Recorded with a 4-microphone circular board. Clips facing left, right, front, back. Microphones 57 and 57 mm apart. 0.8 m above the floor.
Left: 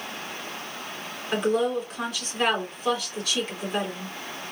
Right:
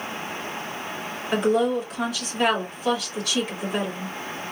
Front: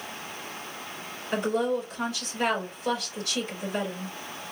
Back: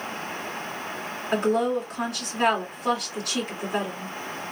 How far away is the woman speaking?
About 1.9 m.